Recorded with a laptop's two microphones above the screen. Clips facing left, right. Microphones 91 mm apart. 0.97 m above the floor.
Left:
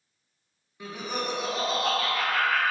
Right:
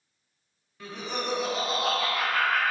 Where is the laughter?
15° left (ahead or behind), 0.7 m; by 2.7 s 10° right (ahead or behind), 1.5 m.